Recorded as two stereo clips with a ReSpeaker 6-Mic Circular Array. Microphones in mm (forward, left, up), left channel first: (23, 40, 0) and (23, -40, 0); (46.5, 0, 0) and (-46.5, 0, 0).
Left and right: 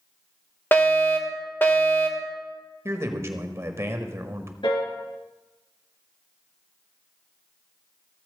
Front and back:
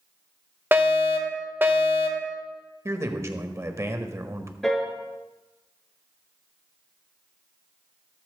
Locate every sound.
0.7 s a fire alarm: 135° left, 2.0 m
2.9 s a man speaking: 130° right, 1.5 m
4.6 s a piano: 85° left, 3 m